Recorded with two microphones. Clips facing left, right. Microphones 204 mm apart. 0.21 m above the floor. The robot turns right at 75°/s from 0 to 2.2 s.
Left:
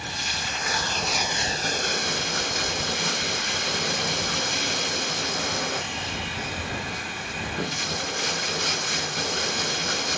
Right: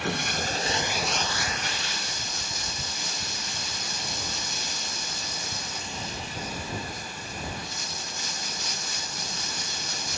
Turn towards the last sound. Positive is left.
turn(degrees=85)